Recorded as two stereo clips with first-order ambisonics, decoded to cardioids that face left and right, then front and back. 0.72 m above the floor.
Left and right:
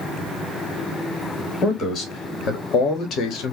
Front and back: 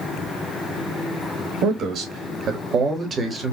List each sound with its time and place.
1.6 s a man speaking: 145° left, 2.0 m; by 3.5 s 115° left, 1.4 m